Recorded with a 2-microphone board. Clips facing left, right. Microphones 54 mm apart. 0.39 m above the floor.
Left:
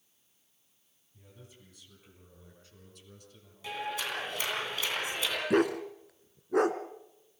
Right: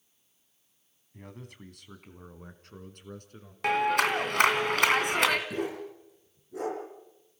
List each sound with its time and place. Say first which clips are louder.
1.1 s a man speaking: right 9 dB; 65° right (ahead or behind), 3 m; by 3.5 s 50° right (ahead or behind), 4.5 m
3.6 s a clap: right 11 dB; 65° right (ahead or behind), 2.5 m
5.5 s a dog barking: left 7 dB; 70° left (ahead or behind), 2 m